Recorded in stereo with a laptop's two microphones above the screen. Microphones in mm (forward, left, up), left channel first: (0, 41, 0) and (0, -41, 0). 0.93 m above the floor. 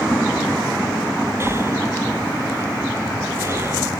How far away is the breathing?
About 0.6 m.